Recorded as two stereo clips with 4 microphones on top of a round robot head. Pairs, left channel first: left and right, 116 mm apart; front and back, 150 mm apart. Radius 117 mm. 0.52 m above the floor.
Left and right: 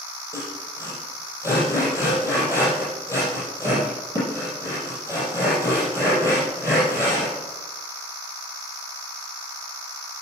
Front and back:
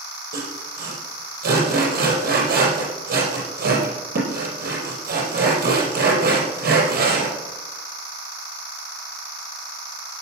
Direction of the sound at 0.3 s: 165° left.